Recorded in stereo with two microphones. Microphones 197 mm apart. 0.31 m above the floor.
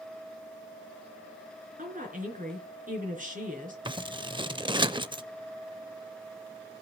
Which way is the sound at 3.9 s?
25° right (ahead or behind).